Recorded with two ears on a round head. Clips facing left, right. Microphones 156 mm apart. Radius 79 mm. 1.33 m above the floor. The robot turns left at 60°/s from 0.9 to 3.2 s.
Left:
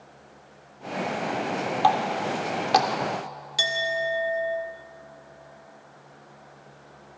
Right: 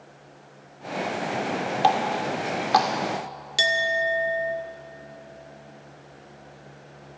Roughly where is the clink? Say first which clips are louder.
Right 2 dB; right.